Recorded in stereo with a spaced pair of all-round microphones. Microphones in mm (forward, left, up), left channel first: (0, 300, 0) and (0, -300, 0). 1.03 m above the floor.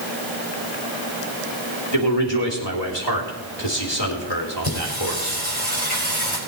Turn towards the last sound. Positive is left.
turn(degrees=40)  # may be behind; listen again after turning